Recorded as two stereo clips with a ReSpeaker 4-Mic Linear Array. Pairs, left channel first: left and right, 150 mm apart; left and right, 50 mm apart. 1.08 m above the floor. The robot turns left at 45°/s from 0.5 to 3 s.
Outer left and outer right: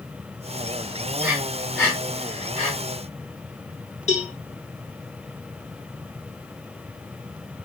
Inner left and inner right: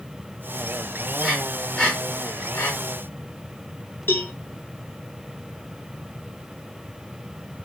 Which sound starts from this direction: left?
A cowbell, at 4.1 s.